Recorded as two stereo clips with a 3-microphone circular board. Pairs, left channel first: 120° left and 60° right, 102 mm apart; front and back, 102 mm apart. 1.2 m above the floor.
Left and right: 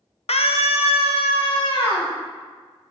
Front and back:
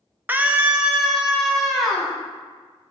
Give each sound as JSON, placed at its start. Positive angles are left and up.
{"t": 0.3, "sound": "a scream", "azimuth_deg": 110, "distance_m": 0.8}